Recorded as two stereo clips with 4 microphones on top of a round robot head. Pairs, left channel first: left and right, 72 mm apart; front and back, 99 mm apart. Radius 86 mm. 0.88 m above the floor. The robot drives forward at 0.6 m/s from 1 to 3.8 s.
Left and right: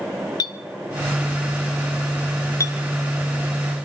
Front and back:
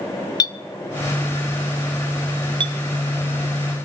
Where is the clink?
50° left, 0.7 m; by 2.8 s 140° left, 0.8 m.